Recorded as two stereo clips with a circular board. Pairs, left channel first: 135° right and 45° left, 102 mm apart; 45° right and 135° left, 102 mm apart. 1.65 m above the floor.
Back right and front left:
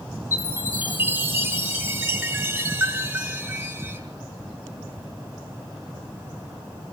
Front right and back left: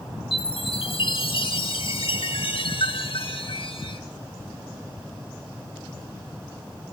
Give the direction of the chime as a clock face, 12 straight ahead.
1 o'clock.